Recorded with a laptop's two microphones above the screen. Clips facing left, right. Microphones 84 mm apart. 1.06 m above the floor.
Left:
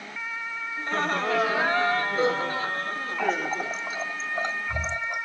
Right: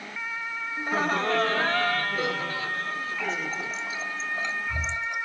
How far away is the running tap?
About 3 m.